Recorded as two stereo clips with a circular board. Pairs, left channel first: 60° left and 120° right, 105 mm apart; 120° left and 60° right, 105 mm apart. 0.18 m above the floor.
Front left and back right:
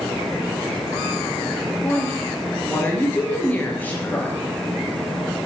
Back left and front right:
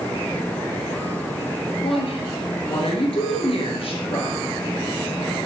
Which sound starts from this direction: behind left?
A woman speaking, at 1.8 s.